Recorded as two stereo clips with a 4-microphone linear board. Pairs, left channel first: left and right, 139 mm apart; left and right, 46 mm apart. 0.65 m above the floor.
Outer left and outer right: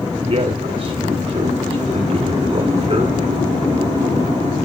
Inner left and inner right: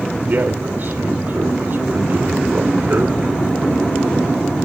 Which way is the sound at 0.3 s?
45° right (ahead or behind).